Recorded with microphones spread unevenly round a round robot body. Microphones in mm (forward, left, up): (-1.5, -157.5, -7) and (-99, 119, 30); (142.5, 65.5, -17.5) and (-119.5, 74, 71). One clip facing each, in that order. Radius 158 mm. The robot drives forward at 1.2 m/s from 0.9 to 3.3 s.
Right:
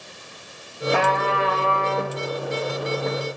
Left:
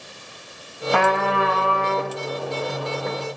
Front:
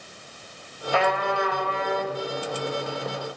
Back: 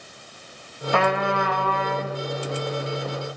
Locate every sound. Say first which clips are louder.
0.9 s a trumpet: left 2 dB, back 2 dB; 140° left, 1.9 m; by 2.2 s 155° left, 3 m